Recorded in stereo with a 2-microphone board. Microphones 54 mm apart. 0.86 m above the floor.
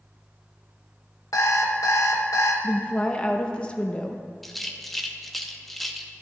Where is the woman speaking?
20° left (ahead or behind), 0.9 m.